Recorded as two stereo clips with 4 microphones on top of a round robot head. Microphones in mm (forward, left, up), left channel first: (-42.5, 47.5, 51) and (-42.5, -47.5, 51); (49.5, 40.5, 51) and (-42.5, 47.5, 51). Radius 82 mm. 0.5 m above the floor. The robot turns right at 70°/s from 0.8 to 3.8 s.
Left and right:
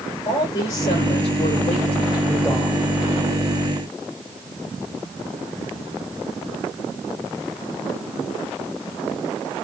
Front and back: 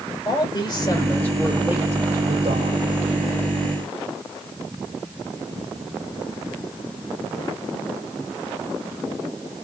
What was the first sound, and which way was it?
A man speaking, 35° left.